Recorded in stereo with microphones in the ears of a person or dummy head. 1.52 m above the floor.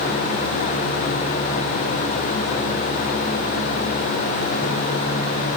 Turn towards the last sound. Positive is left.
No sound to turn to.